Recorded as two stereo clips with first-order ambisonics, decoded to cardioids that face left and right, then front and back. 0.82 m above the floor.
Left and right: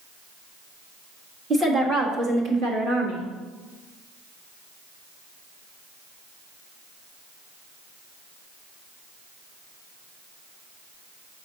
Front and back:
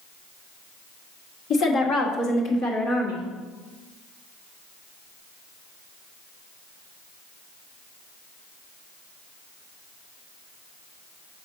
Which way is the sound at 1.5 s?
30° right.